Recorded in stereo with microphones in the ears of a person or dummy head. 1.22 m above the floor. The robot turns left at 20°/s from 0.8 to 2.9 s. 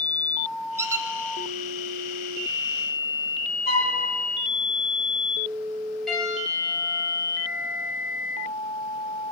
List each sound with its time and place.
0.8 s a squeak: 5° right (ahead or behind), 0.6 m; by 1.1 s 10° right (ahead or behind), 0.6 m
3.7 s a flute: 30° left (ahead or behind), 2.5 m
6.1 s a piano: 5° right (ahead or behind), 7.5 m